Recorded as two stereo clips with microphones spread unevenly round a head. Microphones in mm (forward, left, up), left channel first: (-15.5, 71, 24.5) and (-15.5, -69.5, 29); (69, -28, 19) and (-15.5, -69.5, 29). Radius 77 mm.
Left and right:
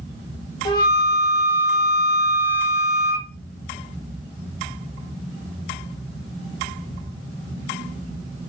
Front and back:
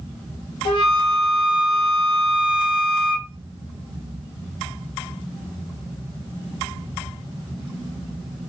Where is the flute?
30° left, 0.8 m.